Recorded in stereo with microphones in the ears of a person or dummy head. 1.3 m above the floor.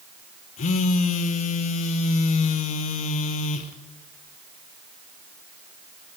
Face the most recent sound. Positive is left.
turn(degrees=45)  # may be behind; listen again after turning